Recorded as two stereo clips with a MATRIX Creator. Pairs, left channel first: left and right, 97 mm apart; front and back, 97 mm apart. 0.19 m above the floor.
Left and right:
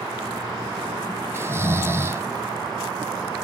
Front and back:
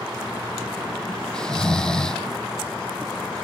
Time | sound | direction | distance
1.3 | snoring | 75° right | 0.9 m